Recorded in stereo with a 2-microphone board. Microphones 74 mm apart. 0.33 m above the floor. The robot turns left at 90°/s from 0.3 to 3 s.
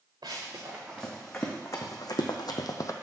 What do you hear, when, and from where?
0.2 s running footsteps: 75° right (ahead or behind), 1.8 m; by 2.9 s 50° left (ahead or behind), 0.6 m